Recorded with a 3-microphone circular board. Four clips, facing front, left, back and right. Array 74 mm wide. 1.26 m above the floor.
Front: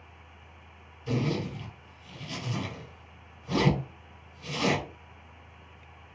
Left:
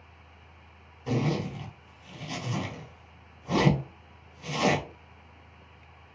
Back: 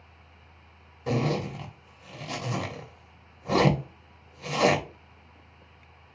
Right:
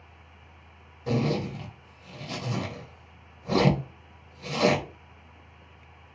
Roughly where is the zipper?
Behind.